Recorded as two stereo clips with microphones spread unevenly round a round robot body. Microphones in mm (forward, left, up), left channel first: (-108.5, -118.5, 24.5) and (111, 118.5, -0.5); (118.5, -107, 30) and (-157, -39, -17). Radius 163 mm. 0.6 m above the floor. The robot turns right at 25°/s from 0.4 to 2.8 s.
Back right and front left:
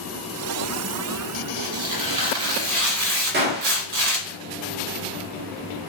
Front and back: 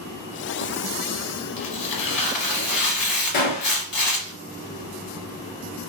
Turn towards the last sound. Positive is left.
turn(degrees=-10)